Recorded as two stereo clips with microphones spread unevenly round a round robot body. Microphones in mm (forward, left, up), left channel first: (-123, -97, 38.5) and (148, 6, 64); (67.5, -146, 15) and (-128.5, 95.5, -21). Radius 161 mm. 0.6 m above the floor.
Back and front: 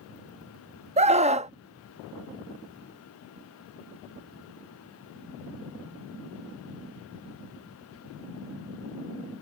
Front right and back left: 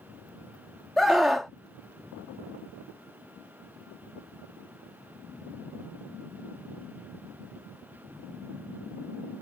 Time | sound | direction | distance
1.0 | a scream | 55° left | ?